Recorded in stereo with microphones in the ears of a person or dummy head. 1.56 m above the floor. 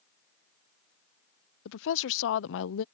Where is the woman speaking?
65° left (ahead or behind).